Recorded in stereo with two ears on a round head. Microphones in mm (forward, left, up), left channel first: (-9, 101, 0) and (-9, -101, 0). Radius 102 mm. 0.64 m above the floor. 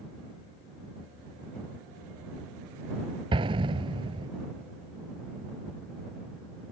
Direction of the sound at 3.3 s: 25° right (ahead or behind).